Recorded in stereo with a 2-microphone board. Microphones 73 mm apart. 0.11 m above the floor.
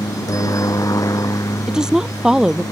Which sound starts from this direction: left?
A helicopter, at 0.0 s.